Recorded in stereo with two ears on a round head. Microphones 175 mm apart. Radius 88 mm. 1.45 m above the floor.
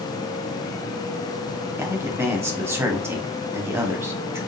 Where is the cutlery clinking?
No cutlery clinking in this recording.